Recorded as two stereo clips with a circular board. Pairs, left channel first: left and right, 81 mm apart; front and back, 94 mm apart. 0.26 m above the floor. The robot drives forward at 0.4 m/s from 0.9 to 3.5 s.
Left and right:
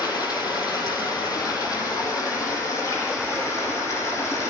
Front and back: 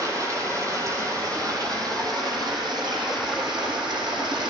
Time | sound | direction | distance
0.0 | running water | 125° left | 2 m